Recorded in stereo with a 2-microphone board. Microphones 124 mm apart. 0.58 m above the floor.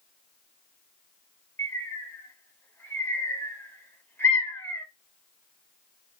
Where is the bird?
20° left (ahead or behind), 0.8 m.